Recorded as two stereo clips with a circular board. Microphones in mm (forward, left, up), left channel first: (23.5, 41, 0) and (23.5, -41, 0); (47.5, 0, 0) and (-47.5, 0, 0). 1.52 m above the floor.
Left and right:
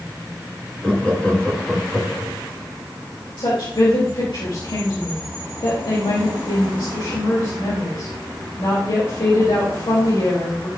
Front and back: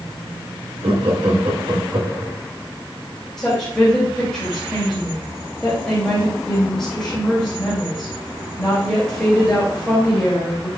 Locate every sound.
0.8 s laughter: 165° left, 2 m
3.4 s a woman speaking: 85° left, 3.5 m